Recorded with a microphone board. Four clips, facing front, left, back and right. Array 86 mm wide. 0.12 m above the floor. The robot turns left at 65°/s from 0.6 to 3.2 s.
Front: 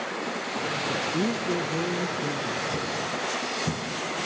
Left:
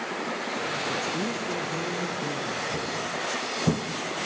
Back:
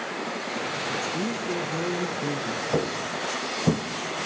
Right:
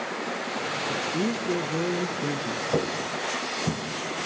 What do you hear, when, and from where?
0.9 s a woman speaking: 20° right, 1.2 m; by 2.6 s 135° right, 1.2 m
2.7 s footsteps: 130° right, 1.2 m; by 3.8 s 145° left, 1.0 m